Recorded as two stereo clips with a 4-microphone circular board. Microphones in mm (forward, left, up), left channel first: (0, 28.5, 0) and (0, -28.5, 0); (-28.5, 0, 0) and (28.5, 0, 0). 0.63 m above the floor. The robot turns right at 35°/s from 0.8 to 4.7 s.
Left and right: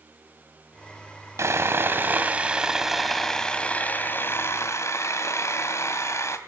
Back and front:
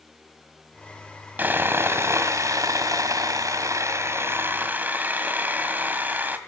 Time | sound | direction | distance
1.4 | sawing | 60° right | 2 m